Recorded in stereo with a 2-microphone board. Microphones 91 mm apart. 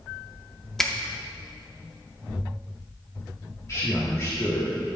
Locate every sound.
0.8 s a finger snap: 5° left (ahead or behind), 0.7 m
3.7 s a man speaking: 35° left (ahead or behind), 1.6 m